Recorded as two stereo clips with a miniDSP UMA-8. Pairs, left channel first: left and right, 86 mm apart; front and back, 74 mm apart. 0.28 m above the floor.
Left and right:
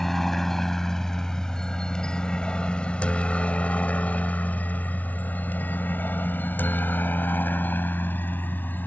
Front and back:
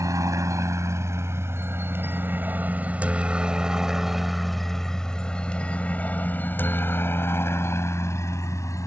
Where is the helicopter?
175° left; by 8.9 s 30° left.